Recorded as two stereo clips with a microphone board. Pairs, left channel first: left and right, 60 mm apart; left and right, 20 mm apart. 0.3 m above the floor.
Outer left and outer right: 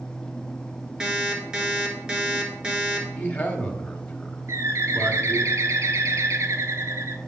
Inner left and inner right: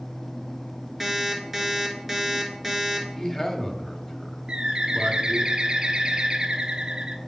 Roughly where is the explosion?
I don't hear an explosion.